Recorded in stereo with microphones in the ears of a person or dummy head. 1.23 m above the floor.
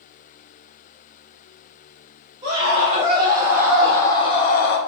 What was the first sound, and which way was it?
A scream, 45° right (ahead or behind).